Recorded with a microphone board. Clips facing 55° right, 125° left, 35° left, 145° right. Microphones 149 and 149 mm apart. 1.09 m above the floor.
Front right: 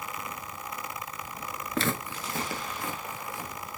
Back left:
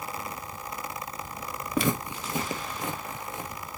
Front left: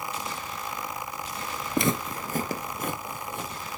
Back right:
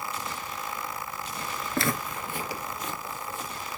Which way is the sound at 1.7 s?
75° left.